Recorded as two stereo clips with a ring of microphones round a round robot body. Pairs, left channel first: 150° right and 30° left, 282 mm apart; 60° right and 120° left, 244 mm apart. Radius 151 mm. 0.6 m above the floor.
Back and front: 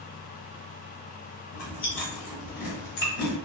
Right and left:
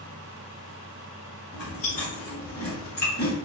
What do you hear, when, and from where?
1.5 s chewing: 120° right, 1.0 m